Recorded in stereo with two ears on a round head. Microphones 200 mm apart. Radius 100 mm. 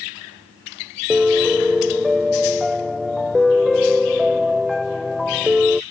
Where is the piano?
Centre (ahead or behind).